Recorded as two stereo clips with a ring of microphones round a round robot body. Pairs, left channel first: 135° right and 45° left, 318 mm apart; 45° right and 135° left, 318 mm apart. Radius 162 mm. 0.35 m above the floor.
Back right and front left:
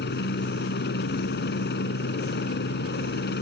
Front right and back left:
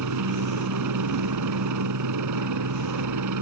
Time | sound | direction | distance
0.0 | a helicopter | 165° left | ?